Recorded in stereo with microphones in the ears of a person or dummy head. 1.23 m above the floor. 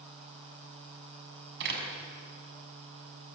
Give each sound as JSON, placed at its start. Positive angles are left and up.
{"t": 1.6, "sound": "a door slam", "side_deg": -60, "distance_m": 6.5}